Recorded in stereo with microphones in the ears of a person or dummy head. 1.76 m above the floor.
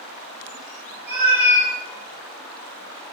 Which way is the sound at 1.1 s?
55° right (ahead or behind).